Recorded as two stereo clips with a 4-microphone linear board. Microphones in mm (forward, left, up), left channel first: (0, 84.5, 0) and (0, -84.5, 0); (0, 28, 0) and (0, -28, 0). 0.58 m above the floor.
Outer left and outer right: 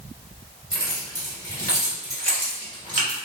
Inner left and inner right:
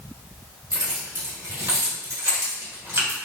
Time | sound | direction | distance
0.7 | keys jangling | 75° right (ahead or behind) | 1.8 m